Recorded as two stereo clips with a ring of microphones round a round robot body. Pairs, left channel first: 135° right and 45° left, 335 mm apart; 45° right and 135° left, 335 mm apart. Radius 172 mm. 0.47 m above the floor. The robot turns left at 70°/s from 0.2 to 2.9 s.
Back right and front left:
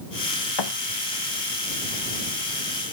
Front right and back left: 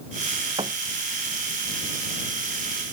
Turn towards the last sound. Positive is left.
turn(degrees=50)